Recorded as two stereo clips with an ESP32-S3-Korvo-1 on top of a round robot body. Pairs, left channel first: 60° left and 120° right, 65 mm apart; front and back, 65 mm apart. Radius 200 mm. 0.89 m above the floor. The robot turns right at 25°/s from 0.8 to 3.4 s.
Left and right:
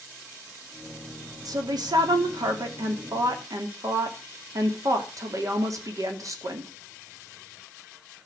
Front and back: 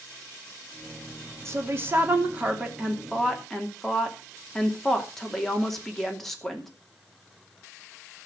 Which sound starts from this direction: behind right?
A woman speaking, at 1.4 s.